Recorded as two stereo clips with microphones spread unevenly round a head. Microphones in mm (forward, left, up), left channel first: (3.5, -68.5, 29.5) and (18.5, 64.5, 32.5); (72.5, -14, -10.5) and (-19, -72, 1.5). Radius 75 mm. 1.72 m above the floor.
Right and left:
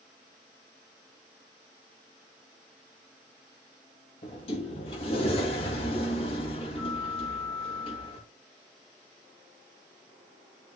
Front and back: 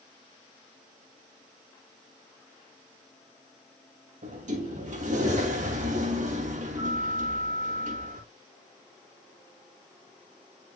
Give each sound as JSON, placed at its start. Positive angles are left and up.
{"t": 4.2, "sound": "a sliding door", "azimuth_deg": -150, "distance_m": 2.5}